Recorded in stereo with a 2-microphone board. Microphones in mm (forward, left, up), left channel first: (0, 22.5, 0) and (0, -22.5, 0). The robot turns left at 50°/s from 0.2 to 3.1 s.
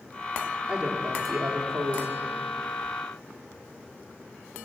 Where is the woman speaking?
20° right, 1.7 m; by 2.2 s 95° right, 1.7 m.